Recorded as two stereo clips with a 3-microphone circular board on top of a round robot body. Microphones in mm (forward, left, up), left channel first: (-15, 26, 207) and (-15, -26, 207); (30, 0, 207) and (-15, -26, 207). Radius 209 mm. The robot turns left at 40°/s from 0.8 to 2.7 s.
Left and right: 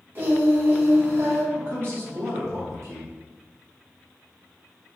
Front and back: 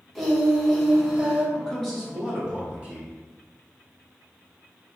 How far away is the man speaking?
About 1.6 m.